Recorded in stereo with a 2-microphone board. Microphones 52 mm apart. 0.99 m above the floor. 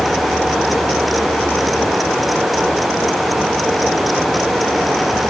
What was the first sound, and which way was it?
Only background noise.